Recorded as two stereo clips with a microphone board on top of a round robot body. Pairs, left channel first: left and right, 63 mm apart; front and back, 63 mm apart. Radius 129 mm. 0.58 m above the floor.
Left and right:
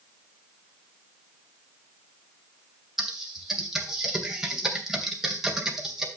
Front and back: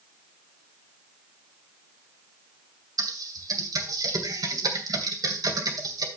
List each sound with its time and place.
3.0 s typing on a keyboard: 175° right, 2.5 m